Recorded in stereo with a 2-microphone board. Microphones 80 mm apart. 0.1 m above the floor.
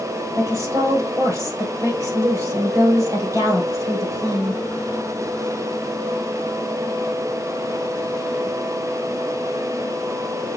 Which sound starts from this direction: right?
A woman speaking, at 0.3 s.